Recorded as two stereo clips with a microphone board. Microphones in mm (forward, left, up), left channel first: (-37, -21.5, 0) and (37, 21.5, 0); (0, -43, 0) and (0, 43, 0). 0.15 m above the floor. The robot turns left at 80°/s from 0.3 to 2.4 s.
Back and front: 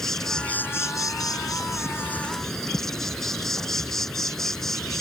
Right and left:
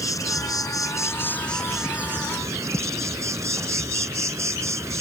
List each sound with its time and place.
0.0 s an insect: 70° right; by 5.0 s 125° left